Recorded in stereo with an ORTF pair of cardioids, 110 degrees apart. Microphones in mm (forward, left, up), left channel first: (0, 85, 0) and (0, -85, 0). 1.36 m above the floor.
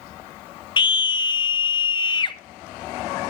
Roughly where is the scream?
Ahead left.